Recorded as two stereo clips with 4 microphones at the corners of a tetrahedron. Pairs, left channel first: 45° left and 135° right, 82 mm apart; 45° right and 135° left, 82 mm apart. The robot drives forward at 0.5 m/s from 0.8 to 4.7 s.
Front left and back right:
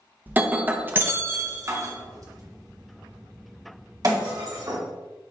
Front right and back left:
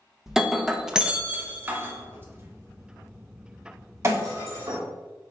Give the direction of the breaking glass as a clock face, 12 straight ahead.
5 o'clock.